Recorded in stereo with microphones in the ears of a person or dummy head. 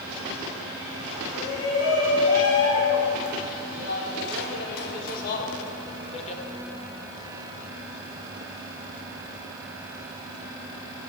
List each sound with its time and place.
1.3 s a shout: 80° left, 3.5 m; by 6.4 s 30° left (ahead or behind), 1.9 m